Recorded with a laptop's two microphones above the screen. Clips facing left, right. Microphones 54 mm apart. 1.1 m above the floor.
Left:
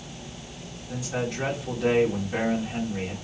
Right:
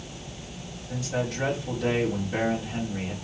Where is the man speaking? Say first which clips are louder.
Even; 5° left (ahead or behind), 2.5 m.